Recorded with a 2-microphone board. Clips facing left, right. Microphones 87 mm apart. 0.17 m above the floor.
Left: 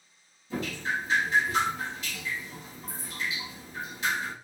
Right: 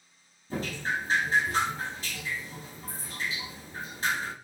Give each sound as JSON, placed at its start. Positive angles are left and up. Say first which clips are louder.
{"t": 0.5, "sound": "dripping", "louder": "even", "side_deg": -40, "distance_m": 1.5}